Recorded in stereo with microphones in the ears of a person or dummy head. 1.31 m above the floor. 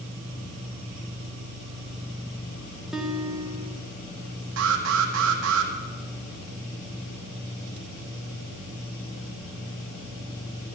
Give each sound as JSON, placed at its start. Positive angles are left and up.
{"t": 2.9, "sound": "a guitar", "side_deg": -5, "distance_m": 1.3}
{"t": 4.6, "sound": "an alarm", "side_deg": -70, "distance_m": 1.7}